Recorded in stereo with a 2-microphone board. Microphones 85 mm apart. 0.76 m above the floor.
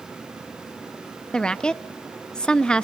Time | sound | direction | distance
1.3 | a woman speaking | 10° left (ahead or behind) | 0.6 m